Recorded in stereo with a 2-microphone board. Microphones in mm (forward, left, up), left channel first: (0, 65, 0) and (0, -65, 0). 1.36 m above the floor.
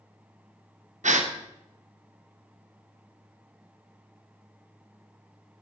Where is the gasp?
75° right (ahead or behind), 0.7 m.